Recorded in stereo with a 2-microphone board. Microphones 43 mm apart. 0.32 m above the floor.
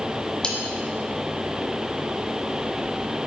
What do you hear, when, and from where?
0.4 s cutlery clinking: 20° left (ahead or behind), 1.6 m